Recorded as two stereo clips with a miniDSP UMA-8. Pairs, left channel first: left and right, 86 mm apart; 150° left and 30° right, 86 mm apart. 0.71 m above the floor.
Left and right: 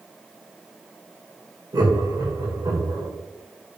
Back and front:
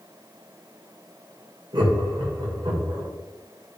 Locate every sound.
1.7 s laughter: 50° right, 2 m